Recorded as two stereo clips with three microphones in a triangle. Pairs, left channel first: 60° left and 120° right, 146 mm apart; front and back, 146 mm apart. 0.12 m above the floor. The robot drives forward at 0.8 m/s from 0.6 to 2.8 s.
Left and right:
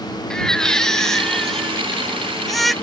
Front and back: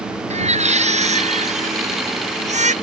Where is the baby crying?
145° left; by 2.7 s 150° left.